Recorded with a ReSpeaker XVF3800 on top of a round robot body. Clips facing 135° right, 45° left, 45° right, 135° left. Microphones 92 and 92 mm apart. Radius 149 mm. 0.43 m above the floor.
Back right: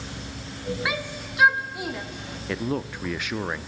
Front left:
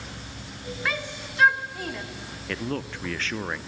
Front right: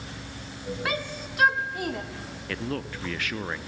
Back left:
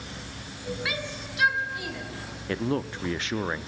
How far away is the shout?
About 1.9 m.